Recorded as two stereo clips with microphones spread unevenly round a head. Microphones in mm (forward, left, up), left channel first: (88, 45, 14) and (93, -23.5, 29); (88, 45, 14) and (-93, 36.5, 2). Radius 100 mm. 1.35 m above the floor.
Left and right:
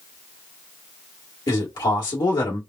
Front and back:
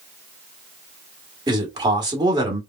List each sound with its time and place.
1.5 s a man speaking: 115° left, 1.5 m